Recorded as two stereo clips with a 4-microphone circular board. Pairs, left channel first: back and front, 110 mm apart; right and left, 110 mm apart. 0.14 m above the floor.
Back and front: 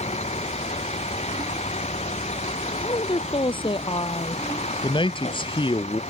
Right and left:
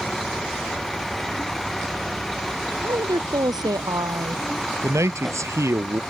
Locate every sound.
0.0 s a vehicle: straight behind
2.8 s a woman speaking: 140° left
4.8 s a man speaking: 150° left